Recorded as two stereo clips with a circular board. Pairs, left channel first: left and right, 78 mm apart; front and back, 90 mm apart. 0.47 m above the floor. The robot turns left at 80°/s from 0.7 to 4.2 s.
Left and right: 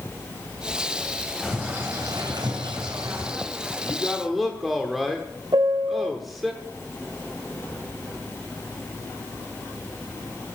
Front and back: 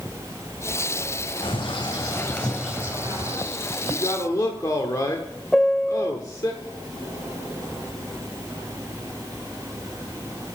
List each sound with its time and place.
1.4 s a bird: straight ahead, 3 m; by 3.4 s 155° right, 3 m
3.8 s a man speaking: 30° left, 1.0 m; by 6.5 s straight ahead, 1.0 m
5.5 s a piano: 85° right, 0.5 m